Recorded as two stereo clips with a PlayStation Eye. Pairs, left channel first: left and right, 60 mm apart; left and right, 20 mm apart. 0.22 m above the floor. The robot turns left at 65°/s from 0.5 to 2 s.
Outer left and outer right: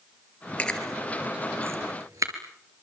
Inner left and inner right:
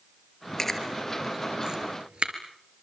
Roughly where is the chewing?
Left.